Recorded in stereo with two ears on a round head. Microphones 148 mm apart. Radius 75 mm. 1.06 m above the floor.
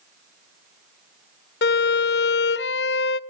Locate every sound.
1.6 s a violin: 65° left (ahead or behind), 0.6 m